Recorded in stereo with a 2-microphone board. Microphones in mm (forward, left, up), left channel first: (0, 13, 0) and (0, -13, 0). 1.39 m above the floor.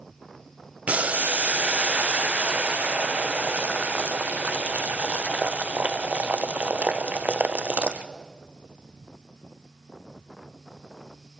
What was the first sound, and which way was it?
Boiling, 60° right (ahead or behind).